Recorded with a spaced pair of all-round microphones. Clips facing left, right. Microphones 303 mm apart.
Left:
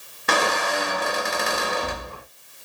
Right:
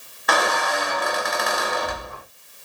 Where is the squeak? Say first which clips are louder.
Even; 35° left (ahead or behind), 0.7 m.